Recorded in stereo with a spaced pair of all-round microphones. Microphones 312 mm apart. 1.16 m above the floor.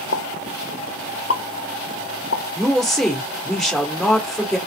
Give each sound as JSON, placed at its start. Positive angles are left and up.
{"t": 0.1, "sound": "a pop", "side_deg": 45, "distance_m": 0.5}
{"t": 2.5, "sound": "a woman speaking", "side_deg": 0, "distance_m": 1.7}